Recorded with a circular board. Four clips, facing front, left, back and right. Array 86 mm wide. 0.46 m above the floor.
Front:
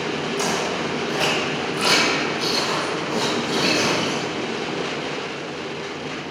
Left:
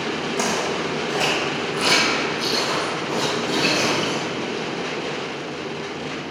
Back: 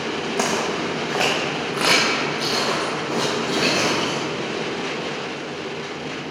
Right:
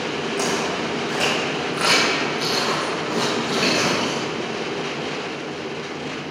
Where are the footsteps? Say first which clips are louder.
Even, back 3 dB; 175° left, 2 m; by 4.3 s 125° right, 4.5 m.